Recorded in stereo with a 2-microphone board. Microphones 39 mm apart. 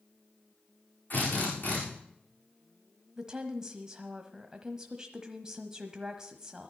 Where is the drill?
50° left (ahead or behind), 8.5 m.